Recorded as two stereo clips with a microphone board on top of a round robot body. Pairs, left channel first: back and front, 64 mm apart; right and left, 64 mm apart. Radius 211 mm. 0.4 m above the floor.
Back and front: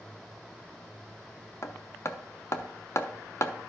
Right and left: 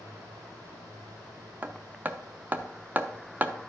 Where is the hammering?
145° left, 1.1 m.